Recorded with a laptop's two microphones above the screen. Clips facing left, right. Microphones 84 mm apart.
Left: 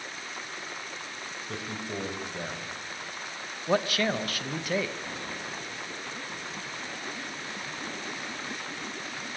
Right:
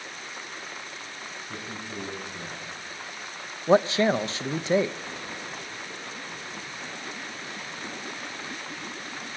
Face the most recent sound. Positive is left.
turn(degrees=-25)  # may be behind; listen again after turning